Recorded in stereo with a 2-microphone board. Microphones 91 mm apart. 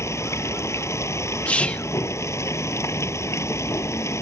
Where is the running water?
30° left (ahead or behind).